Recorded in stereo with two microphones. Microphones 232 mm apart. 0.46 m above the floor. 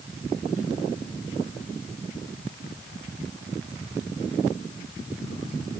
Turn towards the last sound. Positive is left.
No sound to turn to.